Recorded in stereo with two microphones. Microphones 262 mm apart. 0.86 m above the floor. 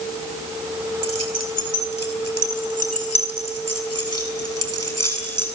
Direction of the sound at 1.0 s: 65° right (ahead or behind).